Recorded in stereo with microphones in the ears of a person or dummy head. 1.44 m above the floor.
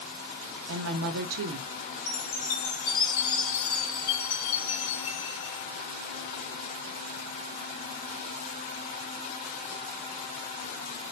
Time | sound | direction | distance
0.7 | a woman speaking | 70° right (ahead or behind) | 0.5 m
2.1 | a chime | 70° left (ahead or behind) | 1.2 m